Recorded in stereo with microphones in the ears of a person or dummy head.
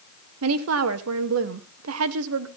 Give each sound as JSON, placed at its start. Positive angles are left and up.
{"t": 0.4, "sound": "a woman speaking", "side_deg": -80, "distance_m": 1.1}